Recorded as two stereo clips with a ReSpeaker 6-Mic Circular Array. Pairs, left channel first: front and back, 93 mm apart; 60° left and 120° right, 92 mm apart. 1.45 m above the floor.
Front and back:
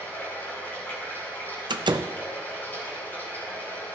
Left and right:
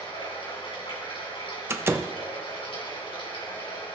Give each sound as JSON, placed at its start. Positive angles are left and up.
{"t": 0.0, "sound": "running water", "azimuth_deg": 70, "distance_m": 4.0}
{"t": 1.7, "sound": "a door slam", "azimuth_deg": -175, "distance_m": 0.6}